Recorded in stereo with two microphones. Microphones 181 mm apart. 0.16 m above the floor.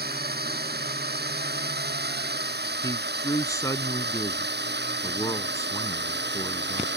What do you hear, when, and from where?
0.0 s a drone: 60° right (ahead or behind); by 7.0 s 70° right (ahead or behind)
2.8 s a man speaking: 20° left (ahead or behind)